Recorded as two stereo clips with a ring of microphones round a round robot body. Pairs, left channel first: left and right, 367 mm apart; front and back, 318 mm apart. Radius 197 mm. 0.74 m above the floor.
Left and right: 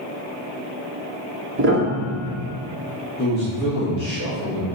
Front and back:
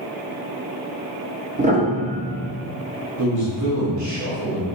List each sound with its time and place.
1.6 s a piano: 125° right, 0.8 m
3.2 s a man speaking: 150° left, 1.4 m